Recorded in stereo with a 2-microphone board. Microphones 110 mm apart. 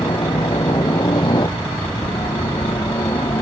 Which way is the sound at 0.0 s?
40° left (ahead or behind).